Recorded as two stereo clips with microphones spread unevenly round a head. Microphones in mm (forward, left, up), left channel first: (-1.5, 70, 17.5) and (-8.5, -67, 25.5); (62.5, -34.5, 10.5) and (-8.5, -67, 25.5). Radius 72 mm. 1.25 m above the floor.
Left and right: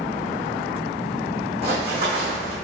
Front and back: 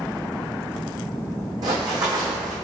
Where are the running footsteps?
135° right, 3 m.